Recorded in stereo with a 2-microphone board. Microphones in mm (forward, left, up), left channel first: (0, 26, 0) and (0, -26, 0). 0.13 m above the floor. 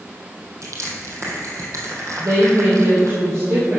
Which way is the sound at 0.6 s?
70° right (ahead or behind).